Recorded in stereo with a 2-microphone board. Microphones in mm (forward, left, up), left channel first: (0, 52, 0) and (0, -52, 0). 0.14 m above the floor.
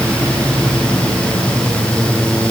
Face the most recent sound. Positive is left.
No sound to turn to.